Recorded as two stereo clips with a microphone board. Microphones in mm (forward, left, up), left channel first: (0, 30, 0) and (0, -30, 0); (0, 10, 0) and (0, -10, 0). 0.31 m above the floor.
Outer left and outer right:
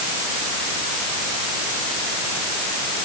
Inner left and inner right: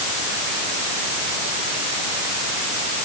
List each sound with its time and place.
Only background noise.